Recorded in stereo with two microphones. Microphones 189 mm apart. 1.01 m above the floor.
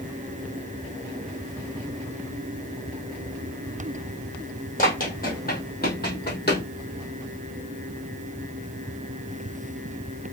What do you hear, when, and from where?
4.8 s running footsteps: 45° left (ahead or behind), 1.9 m; by 6.6 s 60° left (ahead or behind), 1.9 m